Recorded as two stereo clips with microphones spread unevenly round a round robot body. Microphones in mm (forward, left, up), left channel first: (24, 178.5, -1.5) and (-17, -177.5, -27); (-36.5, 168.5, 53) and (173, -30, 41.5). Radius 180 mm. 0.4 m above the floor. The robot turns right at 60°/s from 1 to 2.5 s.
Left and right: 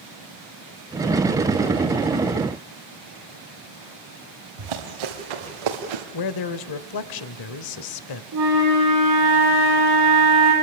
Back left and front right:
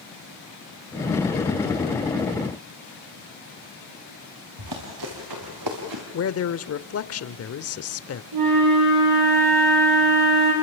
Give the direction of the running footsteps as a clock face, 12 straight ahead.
3 o'clock.